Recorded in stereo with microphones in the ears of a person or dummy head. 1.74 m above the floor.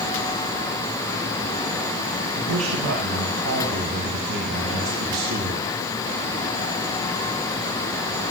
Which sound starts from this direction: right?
A man speaking, at 2.4 s.